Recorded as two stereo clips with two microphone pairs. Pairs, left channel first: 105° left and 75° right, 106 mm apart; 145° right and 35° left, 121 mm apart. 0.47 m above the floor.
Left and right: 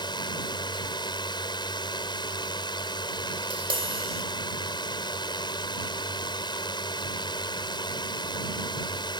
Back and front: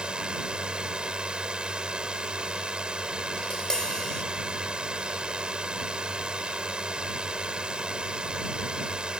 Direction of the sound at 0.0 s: 115° left.